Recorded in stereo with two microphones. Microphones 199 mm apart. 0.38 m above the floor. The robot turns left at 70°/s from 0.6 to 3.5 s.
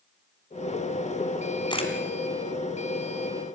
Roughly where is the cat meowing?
I don't hear a cat meowing.